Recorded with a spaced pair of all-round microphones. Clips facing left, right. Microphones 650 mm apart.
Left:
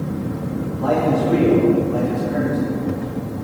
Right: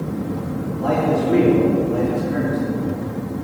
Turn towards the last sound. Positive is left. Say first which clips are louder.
# left 1 dB
turn(degrees=45)  # may be behind; listen again after turning